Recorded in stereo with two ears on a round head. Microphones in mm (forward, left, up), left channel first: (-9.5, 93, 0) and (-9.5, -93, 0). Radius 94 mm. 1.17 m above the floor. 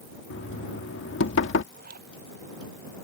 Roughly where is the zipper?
Right.